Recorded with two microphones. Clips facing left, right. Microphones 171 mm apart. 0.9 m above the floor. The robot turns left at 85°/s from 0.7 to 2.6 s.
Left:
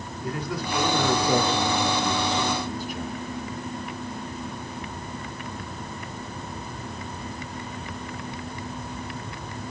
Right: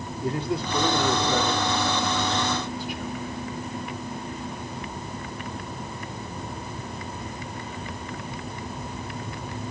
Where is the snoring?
I don't hear snoring.